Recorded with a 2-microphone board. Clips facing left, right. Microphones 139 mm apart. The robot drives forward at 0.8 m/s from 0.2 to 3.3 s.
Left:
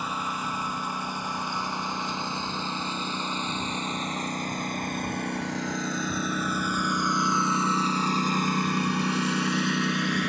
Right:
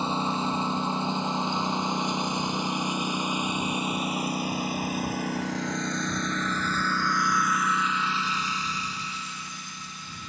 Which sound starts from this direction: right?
A lawn mower, at 0.0 s.